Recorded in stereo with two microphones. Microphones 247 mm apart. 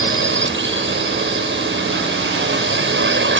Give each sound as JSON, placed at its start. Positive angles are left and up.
{"t": 0.0, "sound": "a drone", "side_deg": -50}